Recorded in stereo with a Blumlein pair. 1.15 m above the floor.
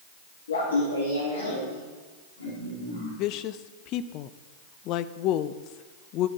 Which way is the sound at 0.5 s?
65° left.